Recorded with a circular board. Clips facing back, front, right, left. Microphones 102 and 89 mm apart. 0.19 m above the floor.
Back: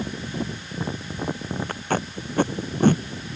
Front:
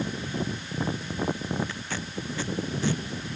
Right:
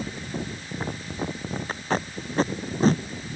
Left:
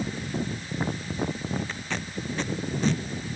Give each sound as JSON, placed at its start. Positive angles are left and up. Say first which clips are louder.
{"t": 1.7, "sound": "tape being pulled", "louder": "back 8 dB, right 6 dB", "azimuth_deg": -140}